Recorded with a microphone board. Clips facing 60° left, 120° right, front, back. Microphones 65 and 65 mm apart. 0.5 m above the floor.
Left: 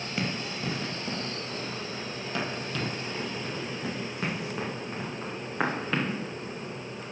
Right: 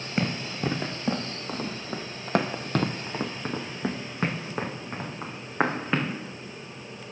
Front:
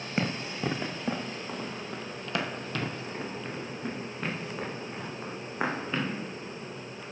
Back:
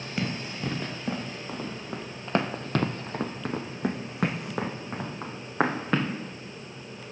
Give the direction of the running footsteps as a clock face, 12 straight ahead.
2 o'clock.